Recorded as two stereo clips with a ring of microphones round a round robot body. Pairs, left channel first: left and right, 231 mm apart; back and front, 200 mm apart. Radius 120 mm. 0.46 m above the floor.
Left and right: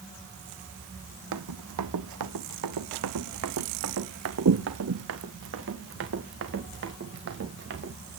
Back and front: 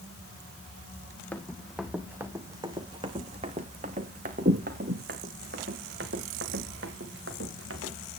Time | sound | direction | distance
1.3 | running footsteps | 95° right | 1.8 m